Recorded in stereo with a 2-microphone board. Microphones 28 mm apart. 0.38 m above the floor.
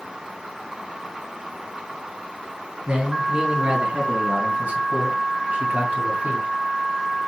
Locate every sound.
2.9 s a man speaking: 45° right (ahead or behind), 3.5 m; by 6.5 s 65° right (ahead or behind), 2.5 m